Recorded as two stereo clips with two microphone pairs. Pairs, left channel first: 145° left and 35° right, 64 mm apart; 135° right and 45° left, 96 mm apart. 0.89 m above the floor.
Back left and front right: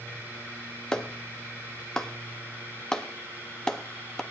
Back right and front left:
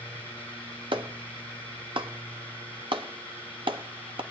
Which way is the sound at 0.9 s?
70° left.